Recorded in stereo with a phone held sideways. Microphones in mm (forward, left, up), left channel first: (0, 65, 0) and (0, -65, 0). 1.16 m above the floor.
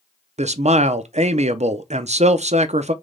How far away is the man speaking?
About 0.5 m.